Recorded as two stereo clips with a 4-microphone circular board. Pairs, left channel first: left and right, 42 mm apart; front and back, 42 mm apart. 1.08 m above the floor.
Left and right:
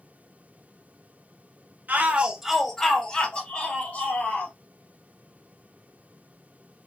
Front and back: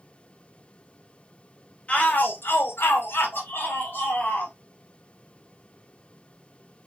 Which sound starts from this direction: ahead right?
A shout, at 1.9 s.